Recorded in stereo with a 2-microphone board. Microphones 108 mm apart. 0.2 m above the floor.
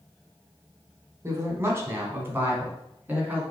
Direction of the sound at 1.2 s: 25° right (ahead or behind).